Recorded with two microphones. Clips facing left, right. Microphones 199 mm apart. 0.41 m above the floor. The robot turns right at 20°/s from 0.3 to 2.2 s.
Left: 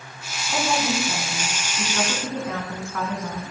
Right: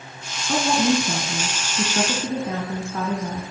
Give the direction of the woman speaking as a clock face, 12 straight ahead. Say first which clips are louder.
Right 5 dB; 2 o'clock.